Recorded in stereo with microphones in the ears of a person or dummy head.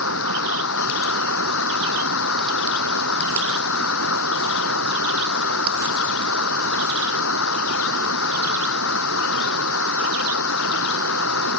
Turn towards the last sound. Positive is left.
turn(degrees=85)